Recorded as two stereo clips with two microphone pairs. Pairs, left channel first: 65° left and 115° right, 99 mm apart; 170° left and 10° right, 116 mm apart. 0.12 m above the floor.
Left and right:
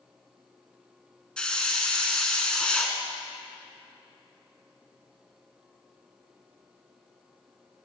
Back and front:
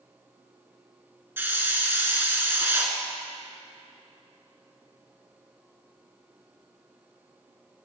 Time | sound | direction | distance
1.4 | a hiss | 10° left | 1.8 m